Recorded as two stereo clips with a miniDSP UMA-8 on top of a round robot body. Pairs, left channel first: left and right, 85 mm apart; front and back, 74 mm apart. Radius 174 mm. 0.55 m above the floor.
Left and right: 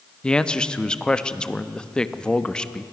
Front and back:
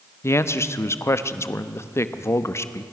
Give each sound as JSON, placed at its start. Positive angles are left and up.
{"t": 0.2, "sound": "a man speaking", "azimuth_deg": 15, "distance_m": 1.3}